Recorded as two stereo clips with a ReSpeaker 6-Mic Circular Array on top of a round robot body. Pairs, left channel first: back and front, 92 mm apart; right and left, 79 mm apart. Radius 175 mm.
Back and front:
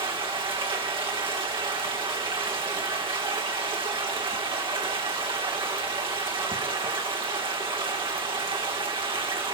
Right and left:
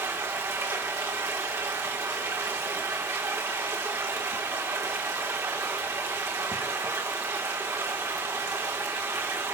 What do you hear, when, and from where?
0.0 s running water: 35° left, 2.5 m